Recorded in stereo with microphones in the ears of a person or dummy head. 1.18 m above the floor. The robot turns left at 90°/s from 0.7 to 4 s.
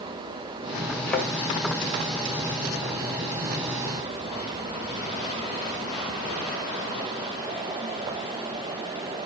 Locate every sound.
1.1 s a thud: 15° left (ahead or behind), 2.5 m; by 1.3 s 5° right (ahead or behind), 2.5 m